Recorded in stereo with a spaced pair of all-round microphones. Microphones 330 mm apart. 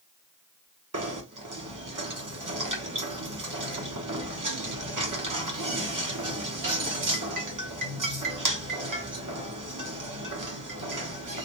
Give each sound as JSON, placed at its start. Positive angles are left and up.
{"t": 0.9, "sound": "knocking", "side_deg": -70, "distance_m": 0.9}